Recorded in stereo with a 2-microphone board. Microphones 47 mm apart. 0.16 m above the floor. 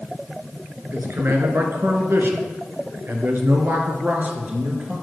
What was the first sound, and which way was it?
A man speaking, 50° right (ahead or behind).